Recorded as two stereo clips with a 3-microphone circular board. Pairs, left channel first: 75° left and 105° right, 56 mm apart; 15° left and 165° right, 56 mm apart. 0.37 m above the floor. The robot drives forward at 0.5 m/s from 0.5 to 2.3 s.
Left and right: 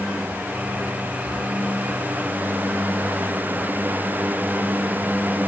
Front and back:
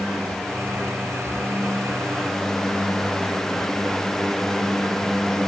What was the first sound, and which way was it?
Only background noise.